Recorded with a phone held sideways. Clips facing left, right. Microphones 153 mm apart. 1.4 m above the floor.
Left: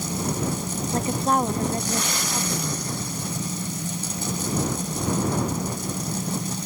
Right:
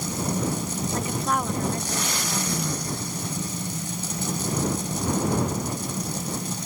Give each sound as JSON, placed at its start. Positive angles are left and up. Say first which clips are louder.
{"t": 0.9, "sound": "a woman speaking", "louder": "left 5 dB", "side_deg": 35}